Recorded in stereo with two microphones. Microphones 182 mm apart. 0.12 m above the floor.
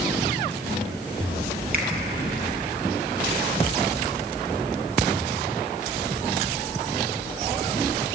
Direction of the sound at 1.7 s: 55° right (ahead or behind).